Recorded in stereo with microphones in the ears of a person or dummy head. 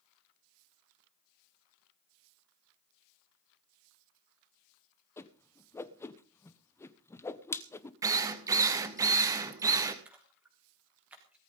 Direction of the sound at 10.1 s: 10° right (ahead or behind).